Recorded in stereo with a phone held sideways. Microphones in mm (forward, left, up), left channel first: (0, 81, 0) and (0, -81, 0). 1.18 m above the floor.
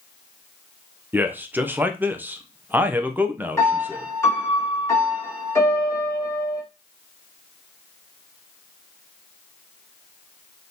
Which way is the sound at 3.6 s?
15° left (ahead or behind).